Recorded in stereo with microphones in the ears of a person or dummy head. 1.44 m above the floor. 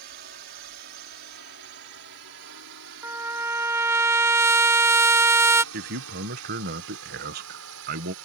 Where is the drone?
50° right (ahead or behind); by 8.2 s 75° right (ahead or behind).